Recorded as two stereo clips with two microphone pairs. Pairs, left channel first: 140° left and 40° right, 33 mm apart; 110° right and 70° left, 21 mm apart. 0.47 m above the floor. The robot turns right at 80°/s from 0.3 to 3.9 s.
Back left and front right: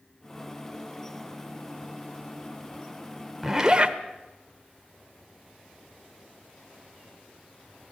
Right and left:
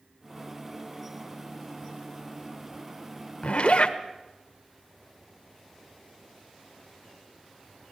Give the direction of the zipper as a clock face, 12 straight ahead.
4 o'clock.